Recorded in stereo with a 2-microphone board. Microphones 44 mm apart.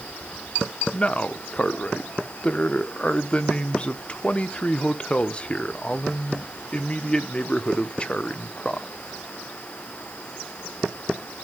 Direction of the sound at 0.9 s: 25° left (ahead or behind).